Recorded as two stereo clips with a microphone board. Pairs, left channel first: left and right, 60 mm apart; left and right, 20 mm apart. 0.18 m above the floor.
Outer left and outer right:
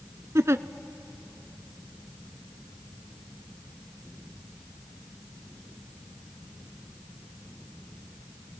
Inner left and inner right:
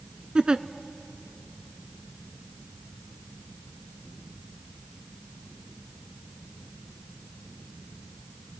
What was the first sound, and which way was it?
A giggle, 55° right (ahead or behind).